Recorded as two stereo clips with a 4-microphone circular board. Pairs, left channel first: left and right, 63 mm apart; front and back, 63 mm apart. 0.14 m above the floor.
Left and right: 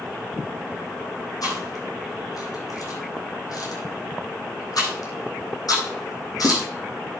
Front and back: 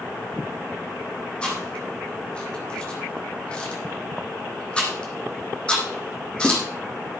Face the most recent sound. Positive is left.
turn(degrees=75)